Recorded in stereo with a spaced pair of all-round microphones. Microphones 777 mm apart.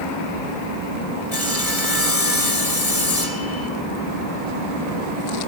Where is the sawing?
50° left (ahead or behind), 3 m.